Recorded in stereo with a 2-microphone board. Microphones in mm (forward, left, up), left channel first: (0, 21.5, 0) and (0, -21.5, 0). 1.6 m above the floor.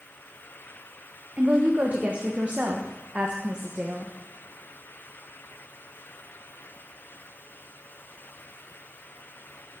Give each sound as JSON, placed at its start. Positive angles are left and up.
{"t": 1.4, "sound": "a woman speaking", "side_deg": -30, "distance_m": 1.4}